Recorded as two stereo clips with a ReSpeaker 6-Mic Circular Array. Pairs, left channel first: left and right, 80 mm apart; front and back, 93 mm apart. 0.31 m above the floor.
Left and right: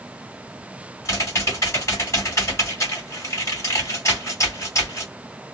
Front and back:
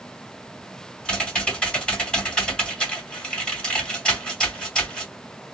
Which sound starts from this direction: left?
Typing on a keyboard, at 1.1 s.